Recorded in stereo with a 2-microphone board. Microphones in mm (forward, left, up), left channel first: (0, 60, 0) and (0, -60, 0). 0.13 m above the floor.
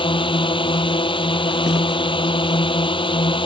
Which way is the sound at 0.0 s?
45° left (ahead or behind).